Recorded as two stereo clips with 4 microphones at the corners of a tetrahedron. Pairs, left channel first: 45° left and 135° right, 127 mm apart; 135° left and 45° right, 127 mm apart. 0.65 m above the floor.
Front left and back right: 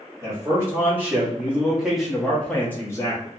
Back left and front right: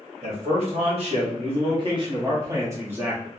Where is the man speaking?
65° right, 1.8 m; by 3.3 s 30° left, 0.9 m.